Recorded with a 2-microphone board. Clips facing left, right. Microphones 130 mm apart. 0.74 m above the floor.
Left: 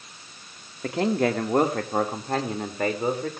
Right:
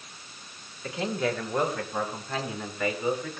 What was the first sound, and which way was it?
A man speaking, 60° left (ahead or behind).